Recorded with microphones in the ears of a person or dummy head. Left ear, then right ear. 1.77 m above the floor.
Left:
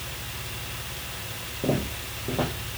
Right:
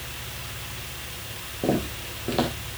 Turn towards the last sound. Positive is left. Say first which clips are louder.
# right 2 dB
turn(degrees=-60)  # may be behind; listen again after turning